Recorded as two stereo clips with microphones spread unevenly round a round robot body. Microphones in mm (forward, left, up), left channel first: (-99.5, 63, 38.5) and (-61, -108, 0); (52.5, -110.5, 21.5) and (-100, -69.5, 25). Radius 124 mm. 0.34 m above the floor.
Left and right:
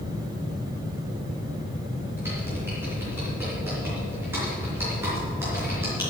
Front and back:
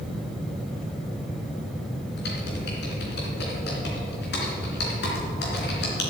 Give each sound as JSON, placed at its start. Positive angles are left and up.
{"t": 2.2, "sound": "typing on a keyboard", "azimuth_deg": 0, "distance_m": 3.0}